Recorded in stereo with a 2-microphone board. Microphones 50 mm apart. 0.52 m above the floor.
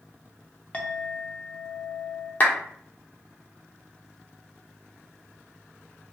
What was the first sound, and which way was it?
A clink, 25° left (ahead or behind).